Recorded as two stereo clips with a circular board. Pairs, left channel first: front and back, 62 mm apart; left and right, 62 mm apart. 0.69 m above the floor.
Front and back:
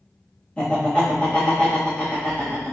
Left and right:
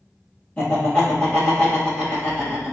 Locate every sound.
0.6 s laughter: 50° left, 1.2 m